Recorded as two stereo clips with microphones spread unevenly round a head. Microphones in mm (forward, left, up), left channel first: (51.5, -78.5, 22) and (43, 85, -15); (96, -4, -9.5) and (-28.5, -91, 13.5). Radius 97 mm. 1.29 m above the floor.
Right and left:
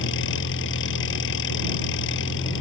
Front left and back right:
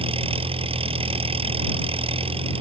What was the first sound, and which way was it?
An engine running, 90° right.